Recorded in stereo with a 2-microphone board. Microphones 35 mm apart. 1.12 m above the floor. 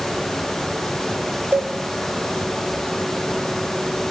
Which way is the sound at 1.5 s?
55° right (ahead or behind).